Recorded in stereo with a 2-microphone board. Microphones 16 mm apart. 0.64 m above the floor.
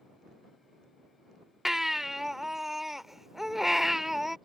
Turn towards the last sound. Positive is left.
turn(degrees=-25)  # may be behind; listen again after turning